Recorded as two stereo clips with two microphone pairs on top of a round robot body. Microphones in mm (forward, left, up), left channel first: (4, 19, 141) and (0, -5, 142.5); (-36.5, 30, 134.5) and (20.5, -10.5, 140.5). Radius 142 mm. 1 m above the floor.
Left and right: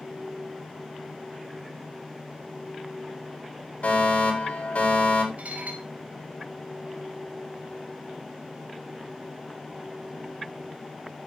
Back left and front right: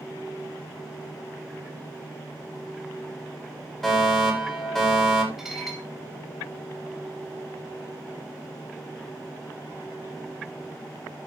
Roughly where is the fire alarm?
Ahead left.